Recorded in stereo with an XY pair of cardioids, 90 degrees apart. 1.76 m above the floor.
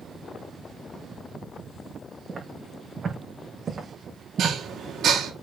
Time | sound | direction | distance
2.3 | footsteps | 30° right | 6.5 m
4.4 | dishes clattering | 70° right | 2.5 m